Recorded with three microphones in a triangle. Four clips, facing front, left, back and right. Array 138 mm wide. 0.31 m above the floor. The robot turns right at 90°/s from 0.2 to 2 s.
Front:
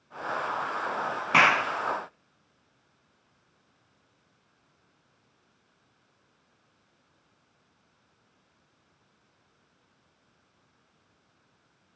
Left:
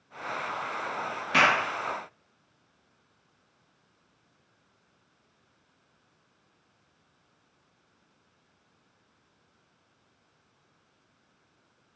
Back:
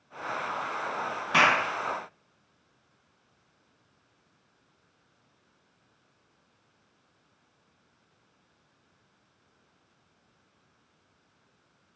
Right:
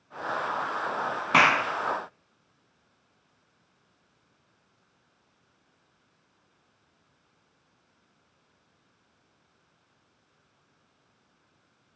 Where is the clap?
70° right, 1.8 m; by 1.6 s 45° right, 1.8 m.